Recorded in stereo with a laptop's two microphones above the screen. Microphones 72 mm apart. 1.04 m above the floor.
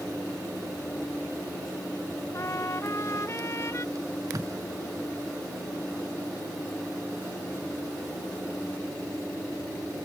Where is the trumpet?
45° left (ahead or behind).